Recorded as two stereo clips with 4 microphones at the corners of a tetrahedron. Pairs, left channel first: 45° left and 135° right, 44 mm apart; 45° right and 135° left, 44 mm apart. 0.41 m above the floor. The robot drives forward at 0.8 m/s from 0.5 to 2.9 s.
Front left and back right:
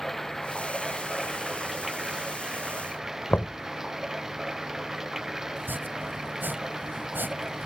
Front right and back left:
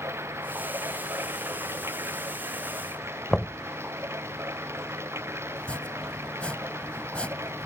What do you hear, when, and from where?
0.0 s running water: 130° left; by 7.7 s 145° left
3.3 s knocking: 30° left
5.6 s chopping: 105° right